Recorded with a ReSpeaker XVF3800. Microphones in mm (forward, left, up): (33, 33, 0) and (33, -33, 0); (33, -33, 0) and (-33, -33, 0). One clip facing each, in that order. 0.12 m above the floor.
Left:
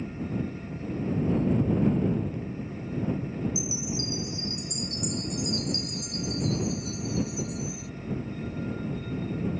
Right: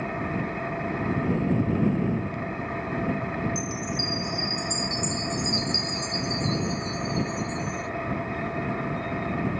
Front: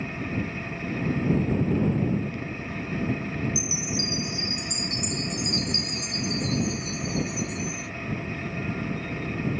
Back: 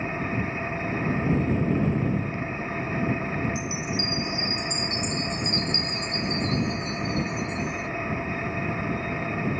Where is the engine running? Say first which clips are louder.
Right 4 dB, back 2 dB; 120° right.